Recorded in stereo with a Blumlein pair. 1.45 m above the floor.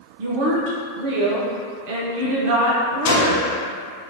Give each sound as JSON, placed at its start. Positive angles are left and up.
{"t": 0.2, "sound": "a woman speaking", "azimuth_deg": -45, "distance_m": 0.6}
{"t": 3.0, "sound": "a gunshot", "azimuth_deg": 55, "distance_m": 0.6}